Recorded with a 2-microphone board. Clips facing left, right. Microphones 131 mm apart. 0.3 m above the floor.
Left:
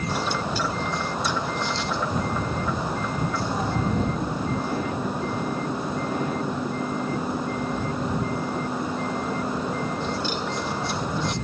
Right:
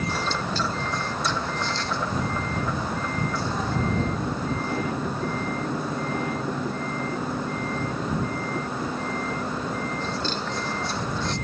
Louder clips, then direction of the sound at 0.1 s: Left 1 dB; 10° left (ahead or behind).